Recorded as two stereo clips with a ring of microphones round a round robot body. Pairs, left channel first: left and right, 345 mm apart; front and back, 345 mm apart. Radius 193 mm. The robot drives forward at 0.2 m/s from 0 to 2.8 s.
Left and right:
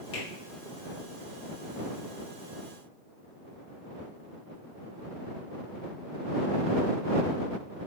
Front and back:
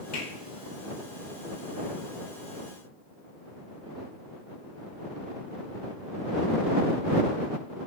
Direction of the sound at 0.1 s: 65° left.